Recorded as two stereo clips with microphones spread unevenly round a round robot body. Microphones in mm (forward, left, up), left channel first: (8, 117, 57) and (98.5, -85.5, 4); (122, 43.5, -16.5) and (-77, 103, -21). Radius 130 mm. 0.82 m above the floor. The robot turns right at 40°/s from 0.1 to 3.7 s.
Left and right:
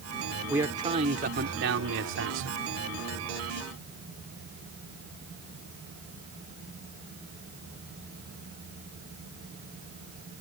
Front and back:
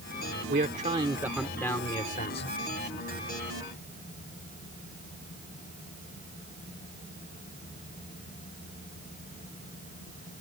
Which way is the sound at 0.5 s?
145° right.